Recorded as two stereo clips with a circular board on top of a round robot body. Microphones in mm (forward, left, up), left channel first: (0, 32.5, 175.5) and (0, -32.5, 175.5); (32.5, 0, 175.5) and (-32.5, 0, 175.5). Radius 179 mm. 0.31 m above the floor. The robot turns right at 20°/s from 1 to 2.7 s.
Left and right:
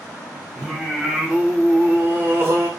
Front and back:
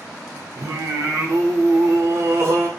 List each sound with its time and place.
0.6 s singing: 165° right, 0.8 m; by 2.7 s 135° right, 0.8 m